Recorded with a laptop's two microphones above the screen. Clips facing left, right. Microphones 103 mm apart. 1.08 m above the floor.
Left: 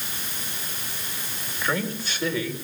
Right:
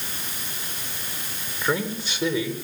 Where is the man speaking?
20° right (ahead or behind), 4.5 m.